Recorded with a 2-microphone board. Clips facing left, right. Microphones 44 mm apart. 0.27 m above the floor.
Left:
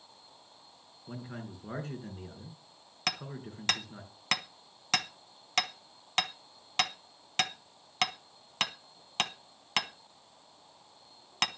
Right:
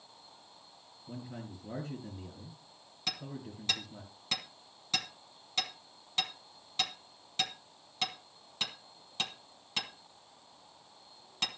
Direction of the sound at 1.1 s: 65° left (ahead or behind).